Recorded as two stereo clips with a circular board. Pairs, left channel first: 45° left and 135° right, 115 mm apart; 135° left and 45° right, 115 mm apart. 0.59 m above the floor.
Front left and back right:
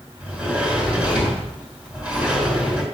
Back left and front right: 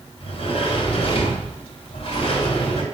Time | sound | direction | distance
0.2 | a sliding door | 150° left | 2.5 m